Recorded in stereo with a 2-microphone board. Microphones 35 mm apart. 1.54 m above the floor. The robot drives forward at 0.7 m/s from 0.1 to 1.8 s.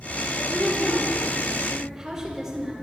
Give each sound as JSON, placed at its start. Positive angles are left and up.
{"t": 0.3, "sound": "a woman speaking", "side_deg": -20, "distance_m": 4.0}